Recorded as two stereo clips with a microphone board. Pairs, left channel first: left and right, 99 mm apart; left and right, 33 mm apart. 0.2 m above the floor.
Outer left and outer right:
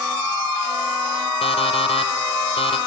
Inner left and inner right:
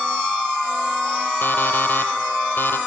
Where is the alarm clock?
75° left (ahead or behind), 4 m.